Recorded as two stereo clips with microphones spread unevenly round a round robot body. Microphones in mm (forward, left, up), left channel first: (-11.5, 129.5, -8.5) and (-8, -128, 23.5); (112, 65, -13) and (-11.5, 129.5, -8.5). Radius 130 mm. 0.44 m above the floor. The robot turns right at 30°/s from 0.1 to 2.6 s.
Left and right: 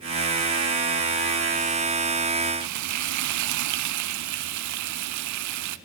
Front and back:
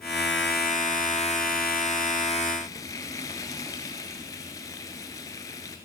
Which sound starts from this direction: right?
Frying, at 2.6 s.